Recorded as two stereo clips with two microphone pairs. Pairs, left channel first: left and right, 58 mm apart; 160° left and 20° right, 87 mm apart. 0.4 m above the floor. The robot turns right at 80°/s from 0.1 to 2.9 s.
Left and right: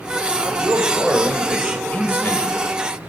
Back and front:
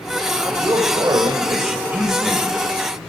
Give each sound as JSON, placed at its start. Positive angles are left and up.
{"t": 0.4, "sound": "a man speaking", "azimuth_deg": -75, "distance_m": 1.5}